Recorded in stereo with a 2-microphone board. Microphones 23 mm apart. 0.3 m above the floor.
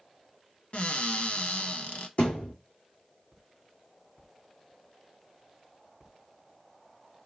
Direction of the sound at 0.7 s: 65° left (ahead or behind).